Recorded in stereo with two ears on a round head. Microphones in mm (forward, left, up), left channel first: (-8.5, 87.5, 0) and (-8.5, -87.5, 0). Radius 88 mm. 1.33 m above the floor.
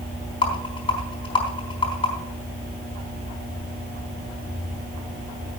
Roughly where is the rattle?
Left.